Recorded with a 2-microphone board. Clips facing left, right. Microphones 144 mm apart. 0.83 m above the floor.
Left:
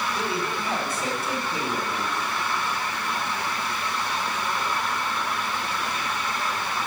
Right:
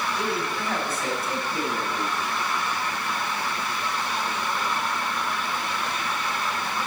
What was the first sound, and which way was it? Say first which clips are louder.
A man speaking: even; 10° left (ahead or behind).